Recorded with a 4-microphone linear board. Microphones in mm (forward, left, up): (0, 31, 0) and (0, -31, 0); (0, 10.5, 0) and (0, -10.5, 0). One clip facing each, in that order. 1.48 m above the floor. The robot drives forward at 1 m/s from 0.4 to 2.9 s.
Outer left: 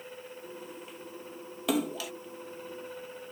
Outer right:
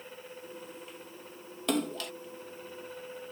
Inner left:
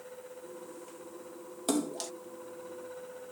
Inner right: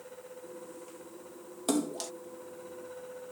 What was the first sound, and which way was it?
A splash, 5° left (ahead or behind).